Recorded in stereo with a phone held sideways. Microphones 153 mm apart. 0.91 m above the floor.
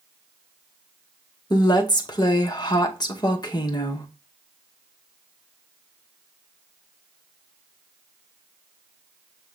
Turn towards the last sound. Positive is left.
turn(degrees=30)  # may be behind; listen again after turning